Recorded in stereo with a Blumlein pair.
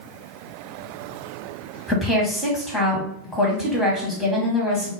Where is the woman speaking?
Straight ahead, 1.2 m.